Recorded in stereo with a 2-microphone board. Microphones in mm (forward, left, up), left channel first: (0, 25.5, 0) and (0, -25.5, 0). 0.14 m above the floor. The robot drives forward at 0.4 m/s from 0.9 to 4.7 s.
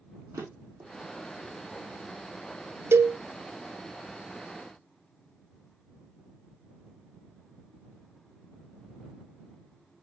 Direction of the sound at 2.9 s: 55° right (ahead or behind).